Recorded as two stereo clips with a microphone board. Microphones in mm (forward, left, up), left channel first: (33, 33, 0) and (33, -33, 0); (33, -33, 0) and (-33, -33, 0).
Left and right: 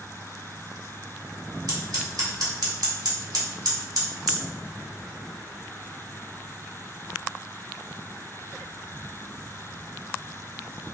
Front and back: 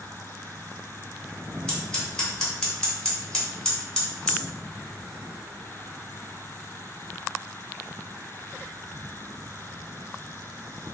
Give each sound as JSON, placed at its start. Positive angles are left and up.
{"t": 1.7, "sound": "scissors", "azimuth_deg": -80, "distance_m": 2.0}